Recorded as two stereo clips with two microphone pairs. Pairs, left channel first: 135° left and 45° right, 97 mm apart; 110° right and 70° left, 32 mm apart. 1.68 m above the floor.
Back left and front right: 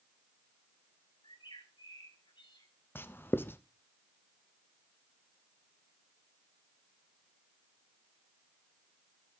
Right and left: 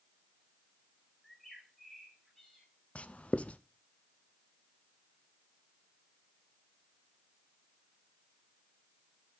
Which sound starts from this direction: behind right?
Writing, at 3.0 s.